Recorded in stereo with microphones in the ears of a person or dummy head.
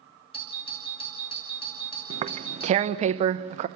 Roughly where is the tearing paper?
Right.